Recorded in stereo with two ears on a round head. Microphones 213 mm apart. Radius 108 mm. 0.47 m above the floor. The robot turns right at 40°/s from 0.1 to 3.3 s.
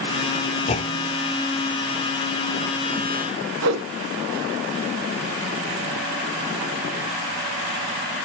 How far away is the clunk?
About 1.0 m.